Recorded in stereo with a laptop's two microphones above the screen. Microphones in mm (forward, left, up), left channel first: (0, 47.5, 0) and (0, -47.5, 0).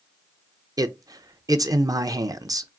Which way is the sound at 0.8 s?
45° right (ahead or behind).